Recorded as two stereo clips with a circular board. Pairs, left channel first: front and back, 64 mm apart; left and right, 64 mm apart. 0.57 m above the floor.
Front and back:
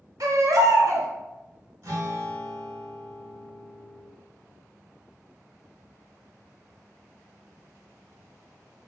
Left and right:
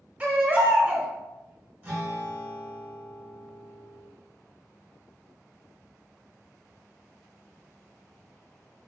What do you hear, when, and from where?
0.2 s a baby crying: 155° right, 0.8 m
1.8 s a guitar: 145° right, 1.4 m